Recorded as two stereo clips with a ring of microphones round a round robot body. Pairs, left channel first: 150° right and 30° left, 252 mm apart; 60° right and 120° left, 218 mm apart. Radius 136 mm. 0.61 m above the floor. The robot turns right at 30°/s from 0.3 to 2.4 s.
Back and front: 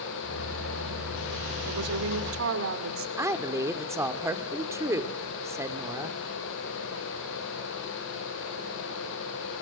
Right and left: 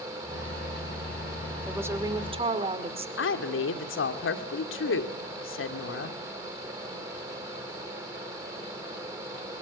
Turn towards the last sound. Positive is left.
turn(degrees=-50)